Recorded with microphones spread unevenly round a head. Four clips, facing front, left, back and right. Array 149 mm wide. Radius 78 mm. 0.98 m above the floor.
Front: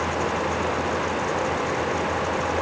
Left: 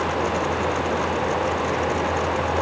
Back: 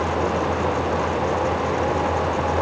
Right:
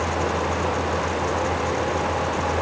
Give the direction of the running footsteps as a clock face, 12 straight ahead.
I don't hear running footsteps.